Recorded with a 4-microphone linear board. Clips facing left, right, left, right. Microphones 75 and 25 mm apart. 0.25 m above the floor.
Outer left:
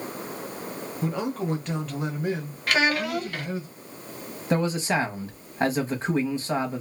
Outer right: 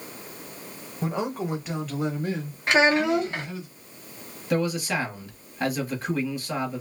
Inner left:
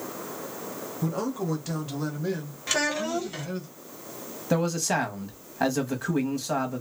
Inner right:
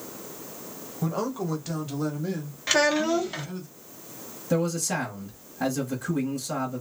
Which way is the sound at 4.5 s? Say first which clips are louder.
Outer left 1 dB, inner left 1 dB; 30° left (ahead or behind).